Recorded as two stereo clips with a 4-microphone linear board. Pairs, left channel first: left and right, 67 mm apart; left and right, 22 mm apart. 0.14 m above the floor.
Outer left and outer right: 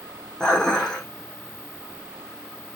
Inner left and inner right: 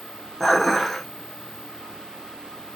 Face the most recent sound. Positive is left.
turn(degrees=10)  # may be behind; listen again after turning